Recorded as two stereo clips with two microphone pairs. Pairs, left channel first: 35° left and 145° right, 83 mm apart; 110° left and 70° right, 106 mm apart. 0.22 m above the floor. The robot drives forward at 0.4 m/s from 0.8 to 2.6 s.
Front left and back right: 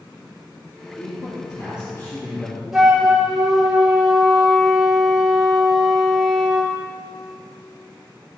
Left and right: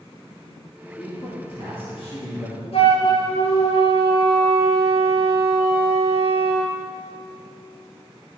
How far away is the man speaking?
About 3 m.